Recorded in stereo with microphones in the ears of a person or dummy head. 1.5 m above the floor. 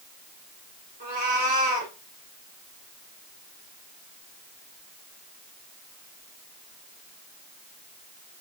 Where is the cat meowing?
40° right (ahead or behind), 3.5 m.